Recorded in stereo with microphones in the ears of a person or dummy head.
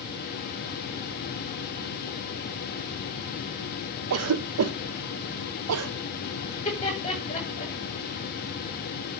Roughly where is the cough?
Right.